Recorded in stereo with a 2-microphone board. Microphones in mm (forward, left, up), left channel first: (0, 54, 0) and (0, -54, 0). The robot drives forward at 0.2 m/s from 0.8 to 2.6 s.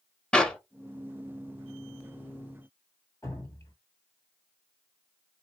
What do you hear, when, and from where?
0.3 s a clap: 10° left (ahead or behind), 0.8 m
3.2 s dripping: 25° left (ahead or behind), 1.8 m